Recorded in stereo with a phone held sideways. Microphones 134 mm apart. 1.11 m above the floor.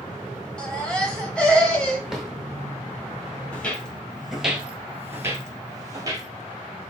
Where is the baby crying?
5° left (ahead or behind), 1.0 m.